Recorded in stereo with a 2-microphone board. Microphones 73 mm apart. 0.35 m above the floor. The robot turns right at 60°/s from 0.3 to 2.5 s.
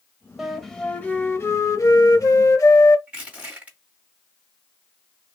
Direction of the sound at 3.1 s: 20° right (ahead or behind).